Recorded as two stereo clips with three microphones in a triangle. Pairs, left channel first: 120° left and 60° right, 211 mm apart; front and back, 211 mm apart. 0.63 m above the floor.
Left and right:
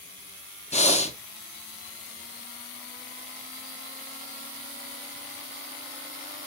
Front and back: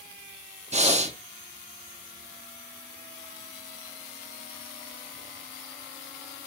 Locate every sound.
0.7 s breathing: 150° left, 0.7 m